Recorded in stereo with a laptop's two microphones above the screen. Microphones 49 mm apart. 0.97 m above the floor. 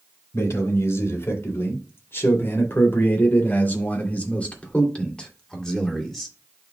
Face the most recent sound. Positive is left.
turn(degrees=5)  # may be behind; listen again after turning